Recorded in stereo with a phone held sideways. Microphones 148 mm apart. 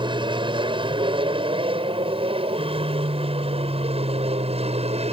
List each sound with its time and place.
0.0 s an aircraft: 35° right (ahead or behind); by 5.1 s 45° right (ahead or behind)